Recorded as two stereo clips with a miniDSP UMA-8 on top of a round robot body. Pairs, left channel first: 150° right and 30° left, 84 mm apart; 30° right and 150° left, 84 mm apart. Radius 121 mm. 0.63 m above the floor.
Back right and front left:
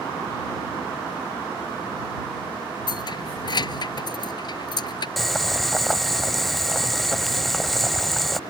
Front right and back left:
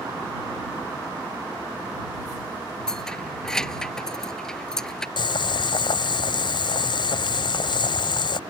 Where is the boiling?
65° right.